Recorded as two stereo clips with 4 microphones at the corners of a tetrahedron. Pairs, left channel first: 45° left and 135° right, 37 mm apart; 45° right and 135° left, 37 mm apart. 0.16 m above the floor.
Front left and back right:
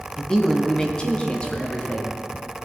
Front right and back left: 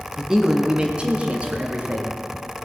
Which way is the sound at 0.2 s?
85° left.